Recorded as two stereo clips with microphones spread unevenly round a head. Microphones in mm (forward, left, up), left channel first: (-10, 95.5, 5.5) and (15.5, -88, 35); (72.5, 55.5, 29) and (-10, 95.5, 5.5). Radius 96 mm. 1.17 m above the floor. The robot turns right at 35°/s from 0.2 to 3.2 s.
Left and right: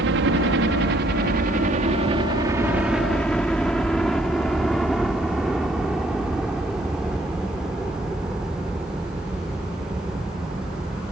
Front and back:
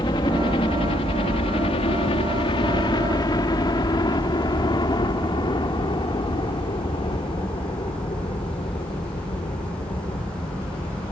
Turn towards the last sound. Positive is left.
turn(degrees=0)